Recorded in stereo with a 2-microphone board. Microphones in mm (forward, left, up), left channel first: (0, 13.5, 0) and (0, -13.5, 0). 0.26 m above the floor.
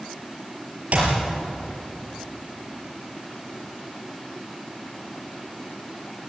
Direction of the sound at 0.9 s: 55° right (ahead or behind).